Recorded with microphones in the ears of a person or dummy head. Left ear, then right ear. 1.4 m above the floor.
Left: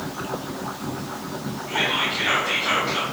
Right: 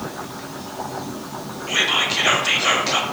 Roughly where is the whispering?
Right.